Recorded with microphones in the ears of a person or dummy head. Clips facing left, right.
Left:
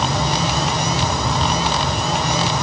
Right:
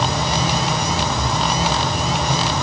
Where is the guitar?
I don't hear a guitar.